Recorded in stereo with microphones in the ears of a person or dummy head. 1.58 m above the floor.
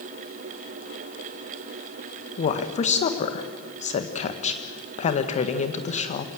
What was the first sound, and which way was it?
A woman speaking, 40° left (ahead or behind).